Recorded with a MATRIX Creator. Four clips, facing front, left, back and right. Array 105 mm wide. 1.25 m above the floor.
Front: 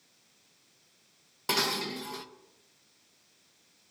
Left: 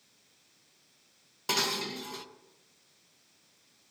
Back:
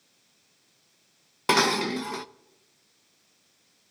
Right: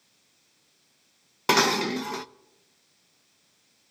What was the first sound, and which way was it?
Dishes clattering, 125° right.